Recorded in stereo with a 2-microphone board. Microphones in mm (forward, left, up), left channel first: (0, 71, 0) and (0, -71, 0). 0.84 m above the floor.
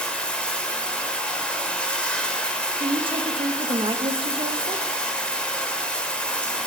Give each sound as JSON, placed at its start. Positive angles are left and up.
{"t": 0.0, "sound": "running water", "side_deg": 5, "distance_m": 0.8}
{"t": 2.8, "sound": "a woman speaking", "side_deg": -35, "distance_m": 0.7}